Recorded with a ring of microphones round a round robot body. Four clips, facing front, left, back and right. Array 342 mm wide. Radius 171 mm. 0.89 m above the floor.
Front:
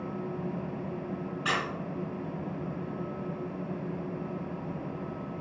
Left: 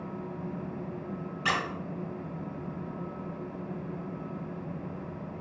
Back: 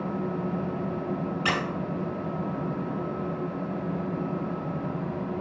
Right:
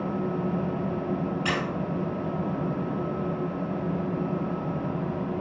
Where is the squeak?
175° right, 1.1 m.